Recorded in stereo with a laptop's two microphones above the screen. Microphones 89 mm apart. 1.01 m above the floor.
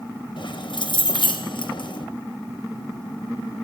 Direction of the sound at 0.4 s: 65° left (ahead or behind).